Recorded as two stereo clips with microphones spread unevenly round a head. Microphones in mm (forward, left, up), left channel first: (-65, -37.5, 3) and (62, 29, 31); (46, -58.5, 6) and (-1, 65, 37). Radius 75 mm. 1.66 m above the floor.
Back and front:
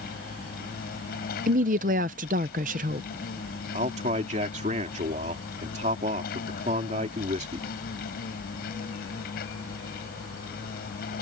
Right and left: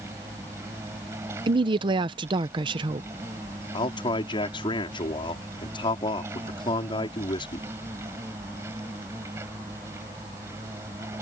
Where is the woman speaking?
60° left.